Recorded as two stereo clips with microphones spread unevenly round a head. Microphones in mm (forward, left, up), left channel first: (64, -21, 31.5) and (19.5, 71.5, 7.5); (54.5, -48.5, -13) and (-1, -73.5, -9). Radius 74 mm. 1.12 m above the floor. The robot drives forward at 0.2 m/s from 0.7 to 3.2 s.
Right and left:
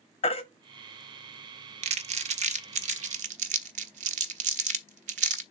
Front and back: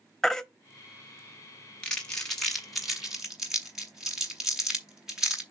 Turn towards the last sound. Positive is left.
turn(degrees=125)